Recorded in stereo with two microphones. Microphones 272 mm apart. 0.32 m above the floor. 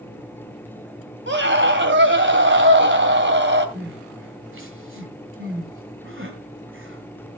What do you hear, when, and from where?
1.3 s a scream: 40° right (ahead or behind), 2 m
3.8 s crying: 45° right (ahead or behind), 1.9 m